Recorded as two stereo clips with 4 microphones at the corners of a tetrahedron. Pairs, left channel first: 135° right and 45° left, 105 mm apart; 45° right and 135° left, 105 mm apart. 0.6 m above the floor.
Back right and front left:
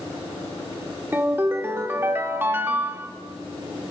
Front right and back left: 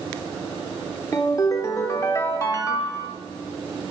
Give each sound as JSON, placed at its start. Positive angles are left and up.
{"t": 1.1, "sound": "a ringtone", "azimuth_deg": -10, "distance_m": 0.7}